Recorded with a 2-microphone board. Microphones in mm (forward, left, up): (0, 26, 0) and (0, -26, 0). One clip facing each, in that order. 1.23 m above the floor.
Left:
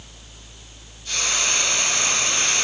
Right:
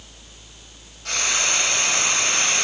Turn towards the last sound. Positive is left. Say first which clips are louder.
# right 1 dB
turn(degrees=-80)